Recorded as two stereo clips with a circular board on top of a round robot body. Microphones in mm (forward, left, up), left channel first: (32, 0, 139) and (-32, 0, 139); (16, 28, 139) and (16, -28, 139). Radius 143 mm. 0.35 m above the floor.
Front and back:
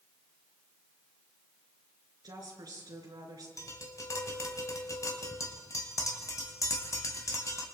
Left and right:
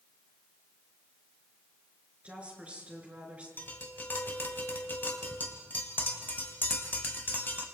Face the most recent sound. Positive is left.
turn(degrees=35)